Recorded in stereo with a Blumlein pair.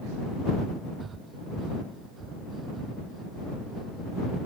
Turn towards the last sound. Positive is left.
turn(degrees=-20)